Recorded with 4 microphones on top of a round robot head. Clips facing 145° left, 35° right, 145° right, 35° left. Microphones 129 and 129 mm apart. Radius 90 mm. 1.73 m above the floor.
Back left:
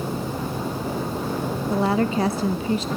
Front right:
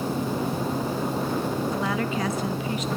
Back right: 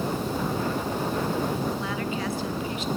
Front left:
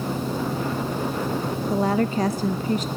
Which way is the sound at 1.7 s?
85° left.